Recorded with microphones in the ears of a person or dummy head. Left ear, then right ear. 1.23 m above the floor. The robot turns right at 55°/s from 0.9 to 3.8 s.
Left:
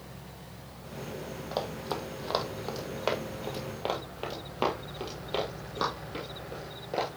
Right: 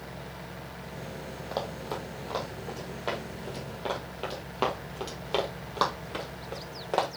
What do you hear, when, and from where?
1.5 s running footsteps: centre (ahead or behind), 2 m; by 7.1 s 35° right (ahead or behind), 2 m